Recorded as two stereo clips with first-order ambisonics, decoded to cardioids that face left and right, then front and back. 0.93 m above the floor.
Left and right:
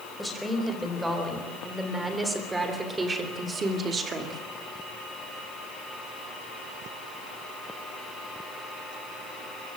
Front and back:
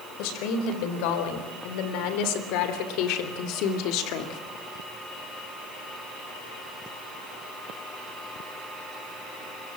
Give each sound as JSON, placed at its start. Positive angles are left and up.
{"t": 0.2, "sound": "a woman speaking", "azimuth_deg": -5, "distance_m": 4.5}